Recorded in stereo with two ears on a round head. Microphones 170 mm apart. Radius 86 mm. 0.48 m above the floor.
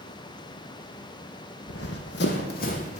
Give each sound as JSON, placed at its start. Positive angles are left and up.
{"t": 1.7, "sound": "running footsteps", "side_deg": 70, "distance_m": 1.3}